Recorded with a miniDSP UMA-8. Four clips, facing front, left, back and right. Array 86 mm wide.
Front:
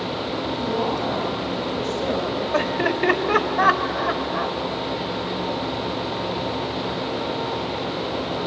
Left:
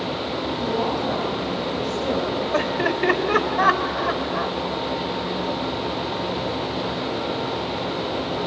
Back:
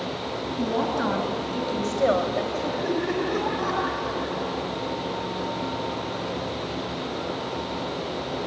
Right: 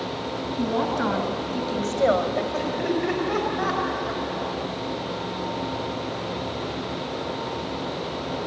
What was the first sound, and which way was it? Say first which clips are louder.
A woman speaking: right 1 dB, back 1 dB; 130° right.